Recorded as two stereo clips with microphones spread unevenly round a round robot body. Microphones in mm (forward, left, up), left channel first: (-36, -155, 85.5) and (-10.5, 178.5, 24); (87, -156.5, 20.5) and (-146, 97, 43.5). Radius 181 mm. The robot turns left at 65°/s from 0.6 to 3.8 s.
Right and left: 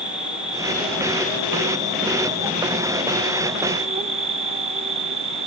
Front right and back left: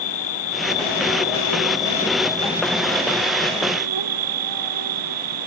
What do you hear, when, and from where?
0.0 s an insect: straight ahead; by 5.5 s 155° left